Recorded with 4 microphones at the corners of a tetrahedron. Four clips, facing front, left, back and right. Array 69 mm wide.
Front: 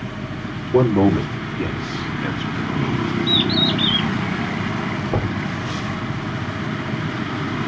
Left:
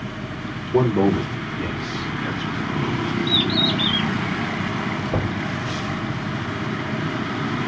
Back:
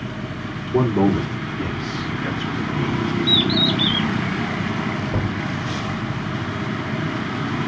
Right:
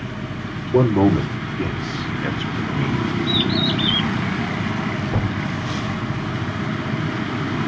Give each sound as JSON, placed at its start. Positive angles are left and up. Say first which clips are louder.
{"t": 0.7, "sound": "a man speaking", "louder": "right 2 dB, front 3 dB", "azimuth_deg": -20, "distance_m": 2.5}
{"t": 3.3, "sound": "a bird", "louder": "even, even", "azimuth_deg": -10, "distance_m": 2.5}
{"t": 5.1, "sound": "knocking", "louder": "even, front 2 dB", "azimuth_deg": 10, "distance_m": 2.0}